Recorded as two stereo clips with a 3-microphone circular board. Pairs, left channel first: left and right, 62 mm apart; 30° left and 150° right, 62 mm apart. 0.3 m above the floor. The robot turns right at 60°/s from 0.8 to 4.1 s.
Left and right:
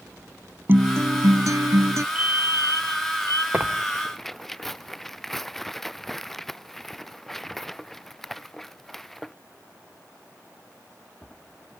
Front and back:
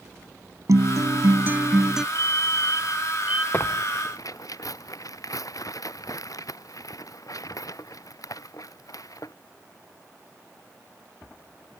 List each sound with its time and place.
0.7 s a guitar: 140° right; by 2.0 s 65° right
2.1 s a fire alarm: 155° right; by 3.4 s 80° right
3.5 s tearing paper: 30° right; by 9.3 s 5° left